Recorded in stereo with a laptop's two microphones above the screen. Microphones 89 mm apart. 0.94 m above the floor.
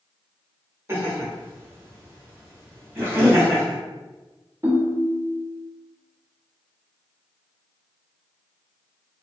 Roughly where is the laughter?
Right.